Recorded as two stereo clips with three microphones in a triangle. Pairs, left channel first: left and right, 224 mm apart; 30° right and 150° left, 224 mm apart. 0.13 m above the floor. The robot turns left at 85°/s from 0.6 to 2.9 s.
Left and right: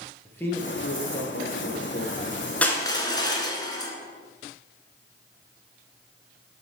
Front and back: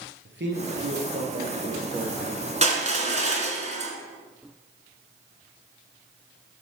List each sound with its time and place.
0.2 s a man speaking: 170° left, 2 m; by 2.4 s 15° left, 2 m
2.6 s crushing: 170° left, 1.5 m; by 3.9 s 145° left, 1.5 m